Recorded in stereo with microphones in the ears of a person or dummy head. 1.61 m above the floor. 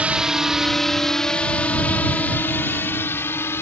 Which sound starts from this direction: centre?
A drone, at 0.0 s.